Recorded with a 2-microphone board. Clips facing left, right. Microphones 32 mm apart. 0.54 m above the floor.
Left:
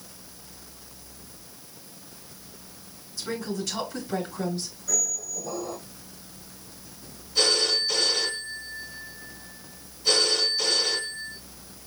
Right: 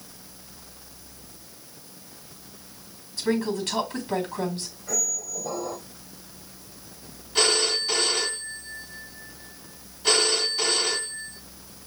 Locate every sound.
3.2 s a woman speaking: 45° right (ahead or behind), 3.5 m
4.9 s a squeak: 65° right (ahead or behind), 3.5 m
7.3 s a phone ringing: 55° right (ahead or behind), 2.5 m